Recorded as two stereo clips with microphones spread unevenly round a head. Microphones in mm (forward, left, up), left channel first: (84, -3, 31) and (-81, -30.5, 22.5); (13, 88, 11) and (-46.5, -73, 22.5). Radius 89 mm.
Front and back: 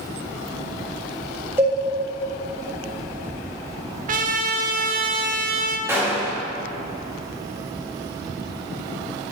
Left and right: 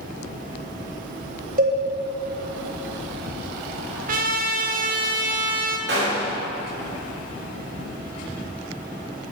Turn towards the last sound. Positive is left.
turn(degrees=-95)